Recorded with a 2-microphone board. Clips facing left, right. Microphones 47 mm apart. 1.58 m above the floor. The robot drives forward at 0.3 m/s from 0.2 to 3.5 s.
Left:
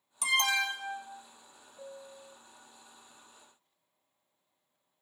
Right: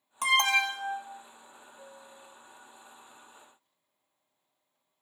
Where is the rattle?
No rattle in this recording.